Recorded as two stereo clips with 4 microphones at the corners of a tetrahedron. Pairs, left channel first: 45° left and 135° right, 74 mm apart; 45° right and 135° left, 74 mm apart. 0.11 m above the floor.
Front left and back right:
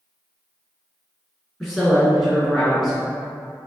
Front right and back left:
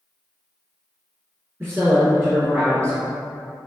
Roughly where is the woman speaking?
Behind left.